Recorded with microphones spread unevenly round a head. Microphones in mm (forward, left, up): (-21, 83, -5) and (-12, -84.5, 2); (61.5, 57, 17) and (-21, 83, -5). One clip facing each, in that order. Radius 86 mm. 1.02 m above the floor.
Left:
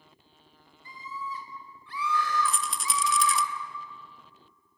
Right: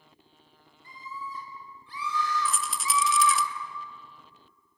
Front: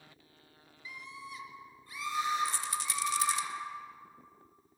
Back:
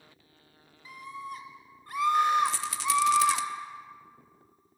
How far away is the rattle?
About 0.7 m.